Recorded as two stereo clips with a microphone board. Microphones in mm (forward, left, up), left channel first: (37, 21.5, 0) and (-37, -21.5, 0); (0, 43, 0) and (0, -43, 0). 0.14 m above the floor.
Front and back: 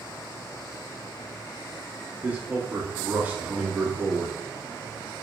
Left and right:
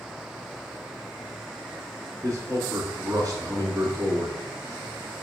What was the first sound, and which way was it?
A man speaking, 90° right.